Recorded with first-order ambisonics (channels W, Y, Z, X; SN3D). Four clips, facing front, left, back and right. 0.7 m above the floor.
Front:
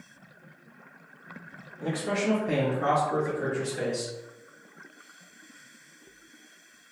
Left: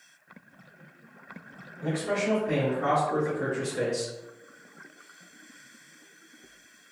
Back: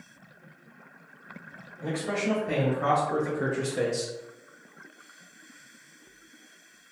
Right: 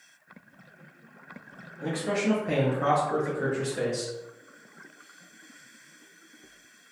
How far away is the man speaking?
About 0.9 m.